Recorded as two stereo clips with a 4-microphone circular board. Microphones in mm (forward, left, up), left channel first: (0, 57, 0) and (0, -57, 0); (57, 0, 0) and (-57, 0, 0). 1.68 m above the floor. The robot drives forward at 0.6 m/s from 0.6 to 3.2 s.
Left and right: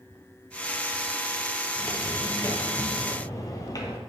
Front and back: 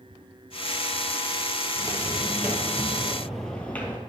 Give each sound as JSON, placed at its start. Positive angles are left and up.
{"t": 1.8, "sound": "footsteps", "azimuth_deg": 150, "distance_m": 2.0}